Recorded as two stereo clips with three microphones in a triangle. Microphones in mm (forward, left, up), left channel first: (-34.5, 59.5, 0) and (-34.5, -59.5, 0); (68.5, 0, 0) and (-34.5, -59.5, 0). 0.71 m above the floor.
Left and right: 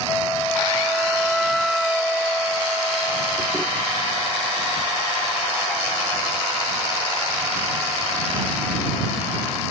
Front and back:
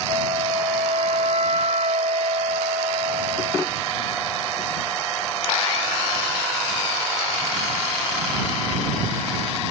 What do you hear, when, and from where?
0.1 s a flute: straight behind